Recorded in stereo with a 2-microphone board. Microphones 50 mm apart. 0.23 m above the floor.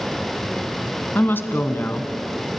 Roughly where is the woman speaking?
Left.